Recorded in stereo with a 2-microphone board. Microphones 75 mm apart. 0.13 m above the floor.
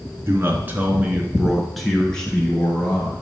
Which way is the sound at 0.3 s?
35° right (ahead or behind).